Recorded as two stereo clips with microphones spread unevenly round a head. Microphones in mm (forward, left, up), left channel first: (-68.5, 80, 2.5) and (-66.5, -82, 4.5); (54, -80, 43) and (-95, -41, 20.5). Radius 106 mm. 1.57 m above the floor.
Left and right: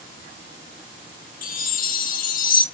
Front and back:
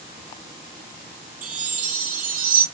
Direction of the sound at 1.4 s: 125° left.